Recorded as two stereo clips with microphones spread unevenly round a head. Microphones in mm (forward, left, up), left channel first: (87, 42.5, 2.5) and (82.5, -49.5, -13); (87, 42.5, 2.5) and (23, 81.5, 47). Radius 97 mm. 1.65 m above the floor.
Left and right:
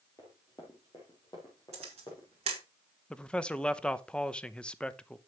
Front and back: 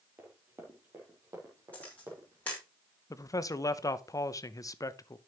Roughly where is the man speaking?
Ahead.